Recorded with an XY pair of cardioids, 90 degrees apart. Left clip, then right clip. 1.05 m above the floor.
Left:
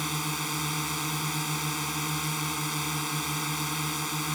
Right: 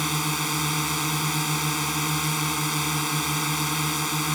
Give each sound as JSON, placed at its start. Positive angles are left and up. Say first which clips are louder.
{"t": 0.0, "sound": "a drone", "louder": "right 5 dB", "azimuth_deg": -35}